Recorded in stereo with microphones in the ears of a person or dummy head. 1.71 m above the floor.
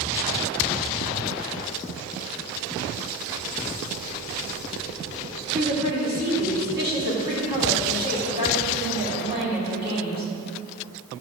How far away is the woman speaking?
About 4 m.